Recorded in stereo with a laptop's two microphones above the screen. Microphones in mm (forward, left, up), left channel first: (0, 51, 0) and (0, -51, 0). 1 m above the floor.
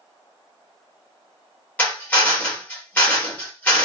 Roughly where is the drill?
Centre.